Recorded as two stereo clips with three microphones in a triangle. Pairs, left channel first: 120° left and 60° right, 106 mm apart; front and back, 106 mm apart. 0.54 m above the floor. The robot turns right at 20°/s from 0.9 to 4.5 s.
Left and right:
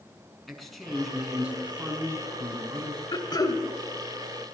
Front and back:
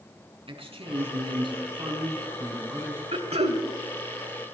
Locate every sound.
0.5 s a man speaking: 150° right, 5.5 m; by 3.0 s 110° right, 5.5 m
3.1 s throat clearing: 165° left, 1.4 m; by 3.6 s 175° left, 1.4 m